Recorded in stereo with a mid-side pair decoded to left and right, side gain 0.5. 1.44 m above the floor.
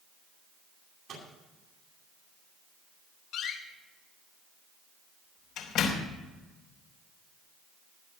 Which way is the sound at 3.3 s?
70° left.